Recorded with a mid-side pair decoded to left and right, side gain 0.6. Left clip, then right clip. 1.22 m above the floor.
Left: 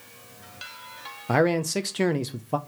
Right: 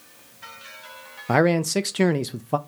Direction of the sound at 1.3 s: 20° right.